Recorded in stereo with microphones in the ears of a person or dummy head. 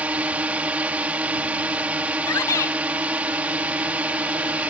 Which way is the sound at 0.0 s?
10° right (ahead or behind).